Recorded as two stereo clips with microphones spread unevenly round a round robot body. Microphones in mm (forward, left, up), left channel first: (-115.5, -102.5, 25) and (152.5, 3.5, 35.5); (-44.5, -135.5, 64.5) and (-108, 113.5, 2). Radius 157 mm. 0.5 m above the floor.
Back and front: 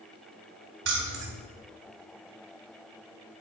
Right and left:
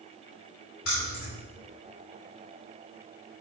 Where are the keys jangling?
15° right, 2 m.